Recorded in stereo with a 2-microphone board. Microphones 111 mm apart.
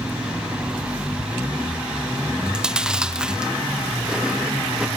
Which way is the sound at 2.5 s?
5° right (ahead or behind).